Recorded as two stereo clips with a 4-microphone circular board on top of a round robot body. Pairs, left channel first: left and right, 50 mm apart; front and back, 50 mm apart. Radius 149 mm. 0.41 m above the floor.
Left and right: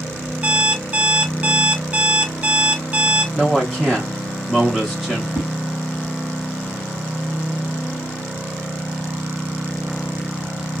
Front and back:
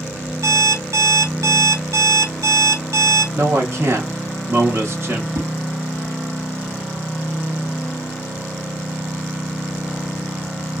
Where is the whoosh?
145° right, 0.9 m.